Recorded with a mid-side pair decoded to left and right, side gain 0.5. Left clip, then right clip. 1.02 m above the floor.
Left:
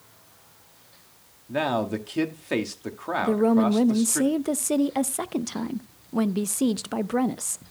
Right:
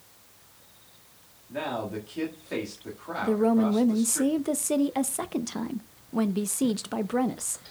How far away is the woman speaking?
About 0.6 m.